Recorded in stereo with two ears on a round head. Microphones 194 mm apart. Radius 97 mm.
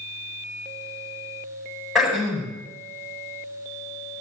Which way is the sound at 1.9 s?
Centre (ahead or behind).